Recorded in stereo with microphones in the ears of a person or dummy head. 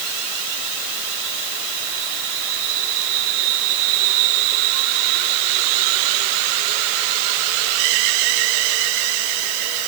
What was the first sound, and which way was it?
Only background noise.